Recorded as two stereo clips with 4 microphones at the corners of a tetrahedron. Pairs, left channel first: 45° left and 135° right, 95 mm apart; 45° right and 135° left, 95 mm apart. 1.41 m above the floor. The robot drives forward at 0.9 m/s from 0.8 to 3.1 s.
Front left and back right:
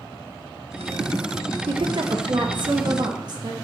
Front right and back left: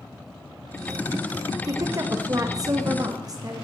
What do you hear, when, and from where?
1.7 s a woman speaking: 170° right, 1.4 m; by 3.5 s 175° right, 2.5 m